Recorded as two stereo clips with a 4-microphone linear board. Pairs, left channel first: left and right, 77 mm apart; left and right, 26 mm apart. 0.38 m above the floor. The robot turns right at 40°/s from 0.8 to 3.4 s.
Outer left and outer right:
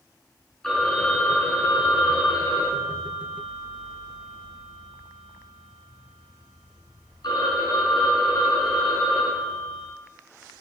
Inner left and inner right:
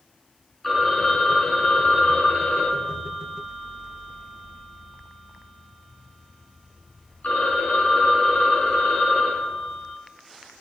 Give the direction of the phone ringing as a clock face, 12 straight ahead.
12 o'clock.